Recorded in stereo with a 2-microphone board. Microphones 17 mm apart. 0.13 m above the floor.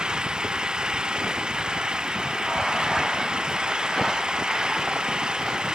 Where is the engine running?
60° right (ahead or behind).